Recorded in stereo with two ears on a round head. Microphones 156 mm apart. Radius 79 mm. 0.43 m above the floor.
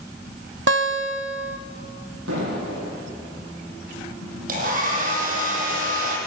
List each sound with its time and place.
0.7 s a guitar: 70° right (ahead or behind), 1.1 m
2.3 s an explosion: 85° right, 8 m
4.5 s a hair dryer: 50° right (ahead or behind), 4.5 m